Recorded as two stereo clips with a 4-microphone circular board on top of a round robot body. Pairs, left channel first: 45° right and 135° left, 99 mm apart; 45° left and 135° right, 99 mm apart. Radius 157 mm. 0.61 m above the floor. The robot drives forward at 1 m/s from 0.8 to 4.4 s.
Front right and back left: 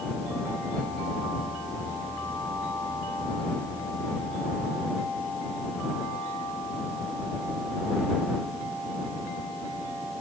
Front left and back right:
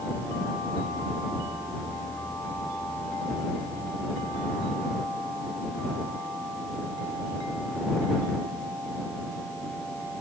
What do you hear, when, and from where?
Only background noise.